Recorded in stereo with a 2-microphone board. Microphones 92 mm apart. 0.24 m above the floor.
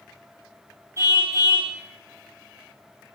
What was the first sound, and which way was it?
A car horn, 30° right (ahead or behind).